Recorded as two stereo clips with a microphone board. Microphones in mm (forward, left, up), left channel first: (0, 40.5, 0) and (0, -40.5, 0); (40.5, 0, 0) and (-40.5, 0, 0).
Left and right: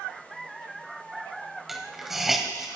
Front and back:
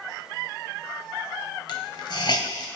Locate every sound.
1.7 s a hiss: 5° right, 1.4 m